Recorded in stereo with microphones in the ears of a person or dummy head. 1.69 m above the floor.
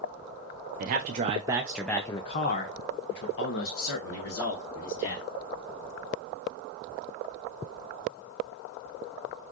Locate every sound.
0.8 s a man speaking: 40° right (ahead or behind), 0.8 m; by 5.3 s 75° left (ahead or behind), 1.8 m